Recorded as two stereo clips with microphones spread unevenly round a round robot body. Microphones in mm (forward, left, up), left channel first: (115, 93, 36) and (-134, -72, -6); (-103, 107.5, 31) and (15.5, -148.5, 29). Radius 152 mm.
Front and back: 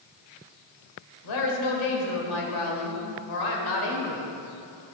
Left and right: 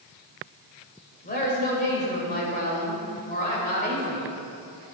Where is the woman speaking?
50° left, 3 m.